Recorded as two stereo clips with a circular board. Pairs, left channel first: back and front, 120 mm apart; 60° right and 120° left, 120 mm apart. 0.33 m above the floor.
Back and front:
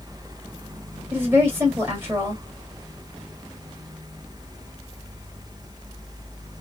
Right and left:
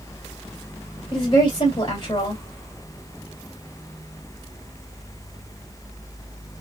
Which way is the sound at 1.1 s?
60° right.